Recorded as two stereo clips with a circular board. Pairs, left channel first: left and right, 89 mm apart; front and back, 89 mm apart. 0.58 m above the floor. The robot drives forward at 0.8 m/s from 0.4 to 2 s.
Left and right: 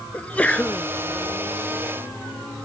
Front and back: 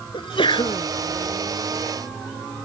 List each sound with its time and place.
0.1 s a sneeze: 15° left